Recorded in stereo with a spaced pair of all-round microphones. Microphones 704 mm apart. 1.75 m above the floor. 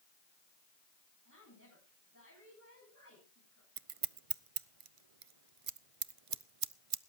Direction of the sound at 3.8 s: 50° right (ahead or behind).